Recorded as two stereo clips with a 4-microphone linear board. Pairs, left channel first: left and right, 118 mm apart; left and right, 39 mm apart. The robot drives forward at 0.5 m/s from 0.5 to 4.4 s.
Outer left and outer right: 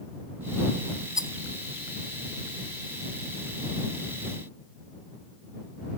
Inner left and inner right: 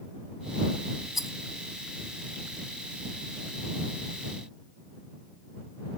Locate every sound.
1.1 s a rattle: 5° right (ahead or behind), 0.8 m